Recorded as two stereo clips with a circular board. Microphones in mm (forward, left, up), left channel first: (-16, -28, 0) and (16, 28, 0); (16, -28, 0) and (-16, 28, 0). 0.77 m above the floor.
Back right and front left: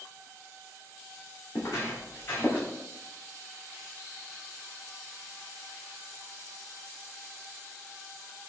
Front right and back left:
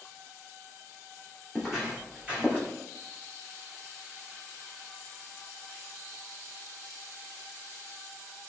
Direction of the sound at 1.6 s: 160° right.